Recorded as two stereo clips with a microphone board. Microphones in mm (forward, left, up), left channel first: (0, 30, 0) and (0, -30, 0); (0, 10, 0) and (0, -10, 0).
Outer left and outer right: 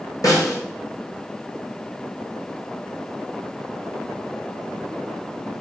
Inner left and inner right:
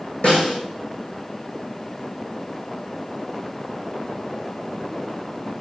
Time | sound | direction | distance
0.2 | a snare drum | 65° left (ahead or behind) | 2.0 m